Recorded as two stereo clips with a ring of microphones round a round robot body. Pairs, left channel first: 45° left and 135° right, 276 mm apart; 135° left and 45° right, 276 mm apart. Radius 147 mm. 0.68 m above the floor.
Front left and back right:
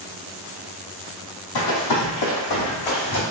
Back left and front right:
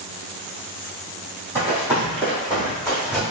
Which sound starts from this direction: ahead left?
Running footsteps, at 1.6 s.